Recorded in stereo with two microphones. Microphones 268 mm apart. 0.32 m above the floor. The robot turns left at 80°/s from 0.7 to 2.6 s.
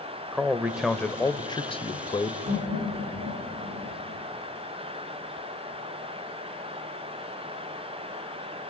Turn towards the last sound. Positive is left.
turn(degrees=-85)